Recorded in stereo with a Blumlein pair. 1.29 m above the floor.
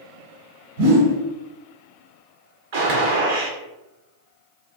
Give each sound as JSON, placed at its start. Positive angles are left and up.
{"t": 0.8, "sound": "a whoosh", "azimuth_deg": -50, "distance_m": 1.2}
{"t": 2.7, "sound": "a gunshot", "azimuth_deg": -50, "distance_m": 0.8}